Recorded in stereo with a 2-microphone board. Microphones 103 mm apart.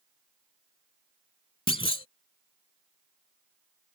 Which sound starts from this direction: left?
A clunk, at 1.7 s.